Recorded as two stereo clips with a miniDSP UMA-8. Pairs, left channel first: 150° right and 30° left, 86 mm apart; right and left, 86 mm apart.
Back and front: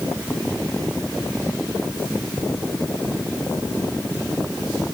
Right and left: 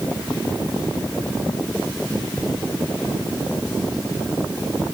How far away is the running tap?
No running tap in this recording.